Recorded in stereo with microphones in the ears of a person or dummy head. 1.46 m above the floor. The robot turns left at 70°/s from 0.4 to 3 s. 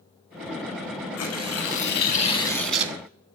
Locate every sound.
1.2 s tearing paper: 110° left, 1.3 m; by 2.9 s 15° right, 1.3 m